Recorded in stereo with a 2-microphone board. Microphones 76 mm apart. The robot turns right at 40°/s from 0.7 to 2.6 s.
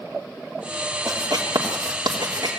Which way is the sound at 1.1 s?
50° right (ahead or behind).